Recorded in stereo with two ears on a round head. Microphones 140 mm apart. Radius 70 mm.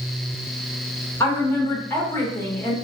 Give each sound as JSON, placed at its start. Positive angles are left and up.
{"t": 1.2, "sound": "a woman speaking", "side_deg": 15, "distance_m": 0.8}